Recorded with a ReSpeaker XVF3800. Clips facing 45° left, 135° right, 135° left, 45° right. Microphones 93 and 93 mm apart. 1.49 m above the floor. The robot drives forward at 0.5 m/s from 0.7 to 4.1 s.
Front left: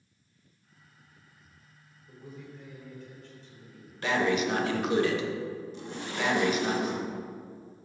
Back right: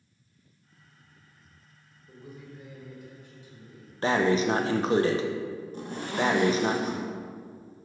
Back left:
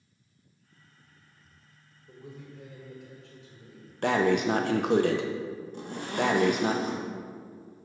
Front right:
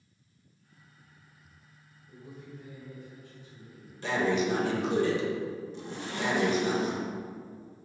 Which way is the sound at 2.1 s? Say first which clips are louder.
Even, back left 1 dB; 140° left.